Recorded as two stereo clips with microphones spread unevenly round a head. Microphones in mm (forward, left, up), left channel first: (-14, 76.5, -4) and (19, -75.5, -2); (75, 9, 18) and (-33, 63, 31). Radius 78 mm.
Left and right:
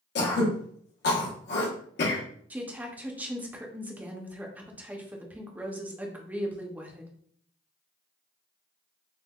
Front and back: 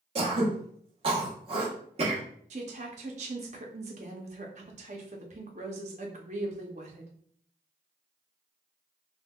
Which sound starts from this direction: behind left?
Throat clearing, at 0.1 s.